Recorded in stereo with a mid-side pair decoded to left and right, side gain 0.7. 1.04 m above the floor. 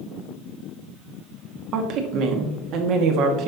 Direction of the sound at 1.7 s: 55° right.